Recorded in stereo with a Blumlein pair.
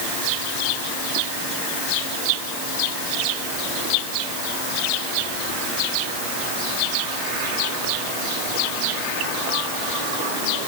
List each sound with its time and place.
Only background noise.